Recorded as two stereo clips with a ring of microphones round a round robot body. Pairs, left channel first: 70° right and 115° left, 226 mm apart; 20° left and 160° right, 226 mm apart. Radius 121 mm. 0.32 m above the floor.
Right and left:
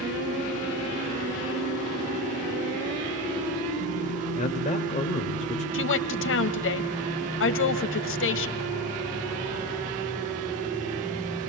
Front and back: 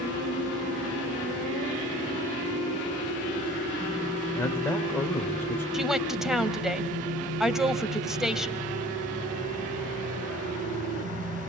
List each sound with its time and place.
4.3 s a man speaking: 50° right, 1.6 m
5.7 s a woman speaking: 70° right, 1.7 m